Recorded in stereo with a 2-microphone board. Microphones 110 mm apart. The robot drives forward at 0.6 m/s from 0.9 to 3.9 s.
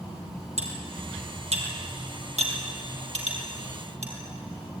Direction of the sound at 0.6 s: 80° right.